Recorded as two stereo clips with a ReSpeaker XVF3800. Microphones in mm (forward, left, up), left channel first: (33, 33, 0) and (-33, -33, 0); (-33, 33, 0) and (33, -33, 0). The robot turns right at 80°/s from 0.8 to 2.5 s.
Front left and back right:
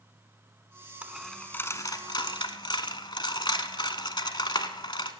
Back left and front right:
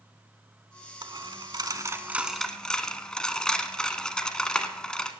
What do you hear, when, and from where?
1.0 s a dropped coin: 65° right, 1.0 m; by 5.1 s 55° left, 1.0 m